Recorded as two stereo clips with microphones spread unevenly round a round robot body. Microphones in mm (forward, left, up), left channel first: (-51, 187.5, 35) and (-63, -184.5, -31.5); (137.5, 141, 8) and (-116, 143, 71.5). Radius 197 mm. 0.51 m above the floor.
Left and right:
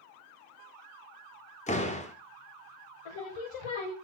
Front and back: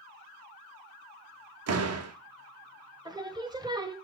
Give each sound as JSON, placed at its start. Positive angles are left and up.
{"t": 1.7, "sound": "a door slam", "azimuth_deg": 165, "distance_m": 0.9}
{"t": 3.0, "sound": "singing", "azimuth_deg": 100, "distance_m": 1.2}